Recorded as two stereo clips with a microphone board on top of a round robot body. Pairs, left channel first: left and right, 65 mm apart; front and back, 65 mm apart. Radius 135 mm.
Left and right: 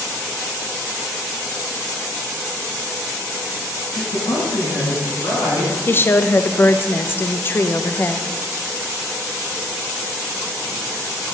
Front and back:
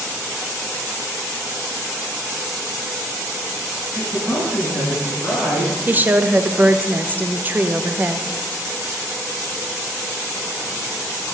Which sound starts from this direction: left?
A man speaking, at 4.0 s.